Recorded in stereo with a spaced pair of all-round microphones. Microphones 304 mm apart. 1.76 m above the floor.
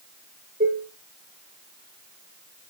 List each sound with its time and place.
0.6 s dishes clattering: 30° right (ahead or behind), 1.3 m